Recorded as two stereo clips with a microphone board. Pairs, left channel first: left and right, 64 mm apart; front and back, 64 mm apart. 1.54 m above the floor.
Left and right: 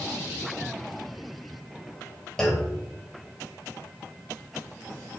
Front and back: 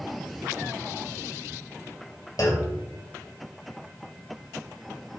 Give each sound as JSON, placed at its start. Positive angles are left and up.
{"t": 2.4, "sound": "a clunk", "azimuth_deg": 10, "distance_m": 2.5}